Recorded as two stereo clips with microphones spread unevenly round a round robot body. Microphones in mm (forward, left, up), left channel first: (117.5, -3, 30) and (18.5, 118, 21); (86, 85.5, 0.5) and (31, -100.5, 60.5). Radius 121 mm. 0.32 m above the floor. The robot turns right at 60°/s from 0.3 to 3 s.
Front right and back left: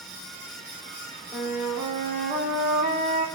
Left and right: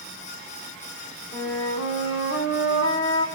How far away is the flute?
About 5.5 m.